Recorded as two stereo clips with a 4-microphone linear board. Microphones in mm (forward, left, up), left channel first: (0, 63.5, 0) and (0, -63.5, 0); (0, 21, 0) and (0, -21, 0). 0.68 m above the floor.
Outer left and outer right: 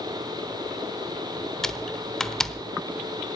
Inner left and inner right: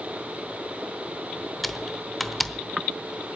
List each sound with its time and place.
1.6 s typing on a keyboard: 5° left (ahead or behind), 0.8 m